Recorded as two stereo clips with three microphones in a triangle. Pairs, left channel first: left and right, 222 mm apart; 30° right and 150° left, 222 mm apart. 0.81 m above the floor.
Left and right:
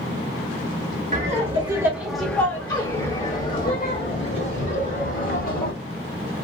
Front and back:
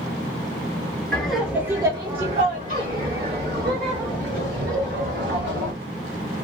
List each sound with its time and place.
1.1 s laughter: 115° right, 1.2 m; by 5.7 s 115° left, 3 m